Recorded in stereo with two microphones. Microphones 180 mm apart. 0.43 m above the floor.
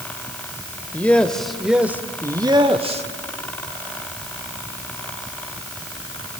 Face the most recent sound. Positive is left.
turn(degrees=-35)  # may be behind; listen again after turning